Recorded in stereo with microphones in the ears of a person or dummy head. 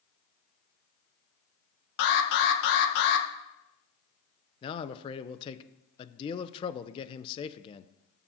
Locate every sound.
2.0 s an alarm: 55° left (ahead or behind), 1.3 m
4.6 s a man speaking: 25° left (ahead or behind), 0.6 m